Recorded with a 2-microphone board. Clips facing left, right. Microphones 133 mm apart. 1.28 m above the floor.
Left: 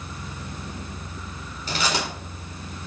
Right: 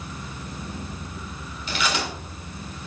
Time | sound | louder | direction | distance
1.7 | chewing | even | 40° left (ahead or behind) | 3.5 m